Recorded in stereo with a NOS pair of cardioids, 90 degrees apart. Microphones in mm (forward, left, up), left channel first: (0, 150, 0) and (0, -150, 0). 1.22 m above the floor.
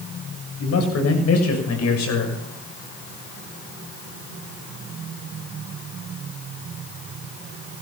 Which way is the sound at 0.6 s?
55° left.